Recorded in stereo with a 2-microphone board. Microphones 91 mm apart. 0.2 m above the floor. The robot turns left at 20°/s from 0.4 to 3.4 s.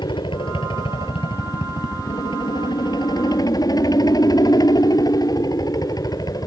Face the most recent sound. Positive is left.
turn(degrees=50)